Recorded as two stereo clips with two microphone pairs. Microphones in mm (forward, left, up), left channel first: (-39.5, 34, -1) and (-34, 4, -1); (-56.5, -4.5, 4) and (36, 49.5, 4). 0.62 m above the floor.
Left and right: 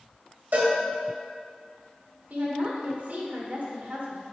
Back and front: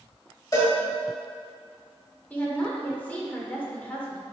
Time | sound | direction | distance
0.5 | a cowbell | 95° right | 1.6 m
2.3 | a woman speaking | 75° right | 1.6 m